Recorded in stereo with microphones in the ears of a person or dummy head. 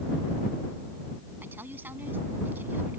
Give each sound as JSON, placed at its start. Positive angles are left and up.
{"t": 1.4, "sound": "a woman speaking", "side_deg": -10}